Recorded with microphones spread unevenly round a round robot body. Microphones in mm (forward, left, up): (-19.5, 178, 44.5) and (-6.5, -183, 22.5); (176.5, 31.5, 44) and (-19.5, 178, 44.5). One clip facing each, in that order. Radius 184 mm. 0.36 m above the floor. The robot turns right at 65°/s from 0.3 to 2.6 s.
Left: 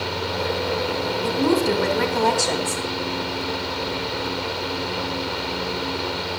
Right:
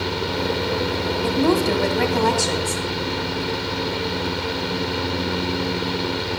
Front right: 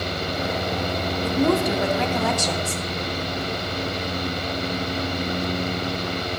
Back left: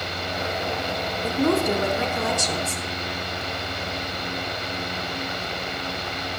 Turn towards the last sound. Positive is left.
turn(degrees=-5)